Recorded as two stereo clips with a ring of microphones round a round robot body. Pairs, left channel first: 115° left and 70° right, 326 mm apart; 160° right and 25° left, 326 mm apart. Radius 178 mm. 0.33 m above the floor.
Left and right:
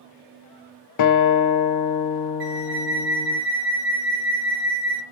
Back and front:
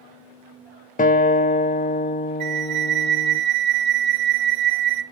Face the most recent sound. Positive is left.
turn(degrees=-10)